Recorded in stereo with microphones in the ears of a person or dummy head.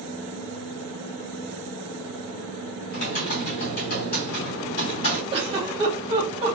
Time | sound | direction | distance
2.9 | typing on a keyboard | 45° left (ahead or behind) | 2.5 m
5.3 | a giggle | 30° right (ahead or behind) | 1.2 m